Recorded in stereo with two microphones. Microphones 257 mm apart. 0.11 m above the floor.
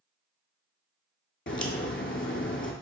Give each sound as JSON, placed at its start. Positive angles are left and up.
{"t": 1.5, "sound": "a crack", "side_deg": 50, "distance_m": 0.6}